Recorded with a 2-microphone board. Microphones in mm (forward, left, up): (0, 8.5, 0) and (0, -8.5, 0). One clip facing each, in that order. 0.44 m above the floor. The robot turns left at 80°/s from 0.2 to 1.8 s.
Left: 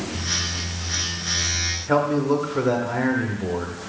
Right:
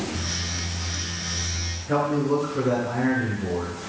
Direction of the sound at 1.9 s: 40° left (ahead or behind).